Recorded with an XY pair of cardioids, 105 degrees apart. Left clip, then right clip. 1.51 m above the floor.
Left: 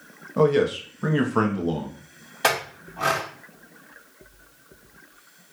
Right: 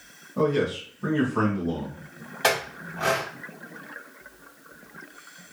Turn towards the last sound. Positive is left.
turn(degrees=20)